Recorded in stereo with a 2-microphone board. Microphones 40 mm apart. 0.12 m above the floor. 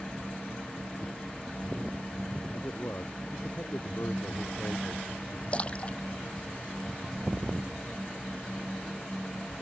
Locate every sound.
2.5 s a man speaking: 70° left (ahead or behind)
5.5 s a splash: 30° left (ahead or behind)